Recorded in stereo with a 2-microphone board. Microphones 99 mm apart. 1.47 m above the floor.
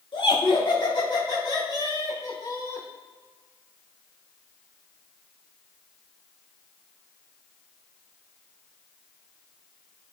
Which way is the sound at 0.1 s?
65° left (ahead or behind).